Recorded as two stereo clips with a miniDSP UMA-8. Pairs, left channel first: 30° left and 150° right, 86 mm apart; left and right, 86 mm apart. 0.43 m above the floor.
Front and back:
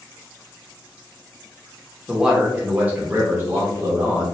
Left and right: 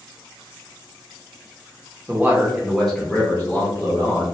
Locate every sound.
2.1 s a man speaking: 70° right, 0.8 m; by 4.2 s 150° left, 1.4 m